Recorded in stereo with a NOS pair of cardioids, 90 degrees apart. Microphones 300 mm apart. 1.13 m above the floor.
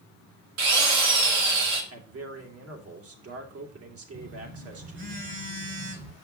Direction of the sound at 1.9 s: 50° right.